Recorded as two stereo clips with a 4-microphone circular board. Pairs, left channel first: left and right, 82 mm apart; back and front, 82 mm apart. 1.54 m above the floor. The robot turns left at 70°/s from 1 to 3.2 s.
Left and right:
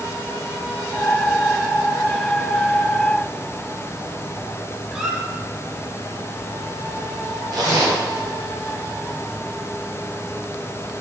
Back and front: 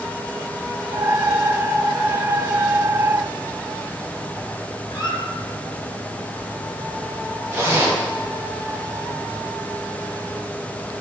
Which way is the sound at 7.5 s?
55° right.